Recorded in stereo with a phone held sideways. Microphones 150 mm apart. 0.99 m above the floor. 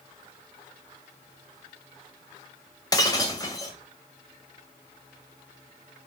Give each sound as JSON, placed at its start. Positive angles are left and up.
{"t": 2.9, "sound": "breaking glass", "side_deg": 25, "distance_m": 2.0}